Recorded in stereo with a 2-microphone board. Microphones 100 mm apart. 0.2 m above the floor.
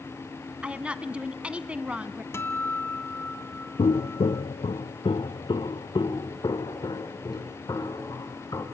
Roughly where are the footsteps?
Left.